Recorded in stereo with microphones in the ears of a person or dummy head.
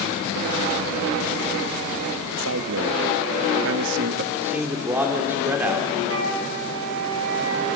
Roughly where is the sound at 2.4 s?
Right.